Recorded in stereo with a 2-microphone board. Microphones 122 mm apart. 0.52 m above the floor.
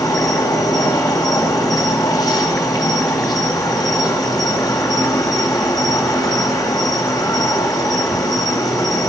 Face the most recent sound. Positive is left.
turn(degrees=30)  # may be behind; listen again after turning